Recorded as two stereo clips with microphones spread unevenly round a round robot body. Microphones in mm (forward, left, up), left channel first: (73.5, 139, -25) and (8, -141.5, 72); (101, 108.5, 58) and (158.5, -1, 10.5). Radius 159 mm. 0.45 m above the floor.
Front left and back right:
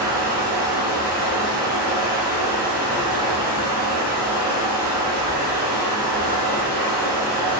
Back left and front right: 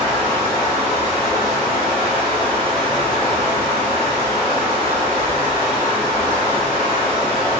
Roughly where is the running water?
Behind right.